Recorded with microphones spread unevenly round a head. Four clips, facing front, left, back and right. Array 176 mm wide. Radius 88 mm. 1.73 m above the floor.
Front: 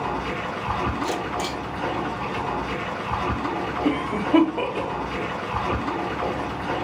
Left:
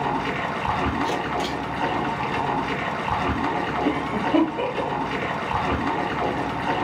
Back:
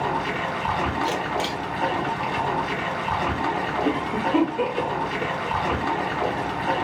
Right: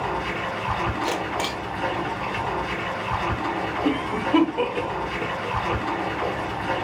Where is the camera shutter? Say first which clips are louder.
Left 1 dB, back 2 dB; 105° right, 1.2 m.